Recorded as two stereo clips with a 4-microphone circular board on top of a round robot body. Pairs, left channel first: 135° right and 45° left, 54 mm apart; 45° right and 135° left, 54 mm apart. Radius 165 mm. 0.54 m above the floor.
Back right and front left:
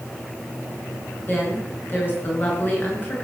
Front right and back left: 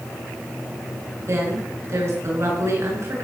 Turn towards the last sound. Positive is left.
turn(degrees=170)